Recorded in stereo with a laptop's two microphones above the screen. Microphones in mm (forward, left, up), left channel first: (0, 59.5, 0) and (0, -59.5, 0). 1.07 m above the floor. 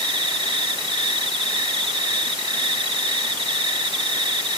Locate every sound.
0.0 s an insect: 40° right (ahead or behind)